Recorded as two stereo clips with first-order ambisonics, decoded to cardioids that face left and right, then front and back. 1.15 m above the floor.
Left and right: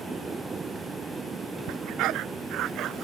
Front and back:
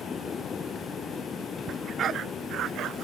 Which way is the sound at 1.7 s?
120° right.